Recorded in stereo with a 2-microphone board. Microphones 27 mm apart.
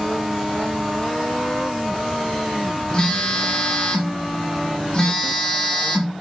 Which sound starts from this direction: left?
A phone buzzing, at 2.9 s.